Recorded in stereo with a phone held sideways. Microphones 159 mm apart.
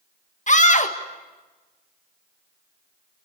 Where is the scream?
50° left (ahead or behind), 1.8 m.